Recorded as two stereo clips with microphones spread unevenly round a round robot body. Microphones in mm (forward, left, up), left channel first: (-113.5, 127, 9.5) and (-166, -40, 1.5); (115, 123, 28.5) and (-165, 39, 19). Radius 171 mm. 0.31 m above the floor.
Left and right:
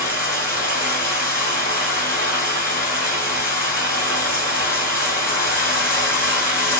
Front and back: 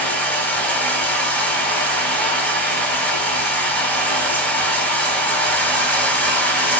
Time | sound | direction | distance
0.0 | running water | 100° left | 2.5 m